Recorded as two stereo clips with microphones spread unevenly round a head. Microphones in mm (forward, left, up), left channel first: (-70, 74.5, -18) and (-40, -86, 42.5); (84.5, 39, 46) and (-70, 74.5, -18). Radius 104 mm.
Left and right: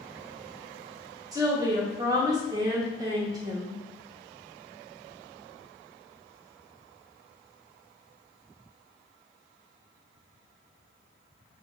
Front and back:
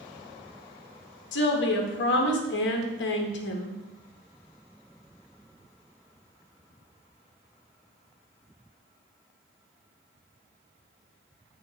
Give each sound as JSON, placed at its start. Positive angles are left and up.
{"t": 1.3, "sound": "a woman speaking", "azimuth_deg": -5, "distance_m": 0.9}